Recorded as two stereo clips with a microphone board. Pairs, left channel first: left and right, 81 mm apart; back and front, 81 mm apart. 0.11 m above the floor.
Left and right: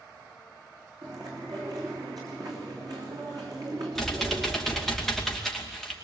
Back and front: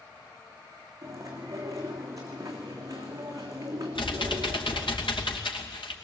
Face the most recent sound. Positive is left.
turn(degrees=180)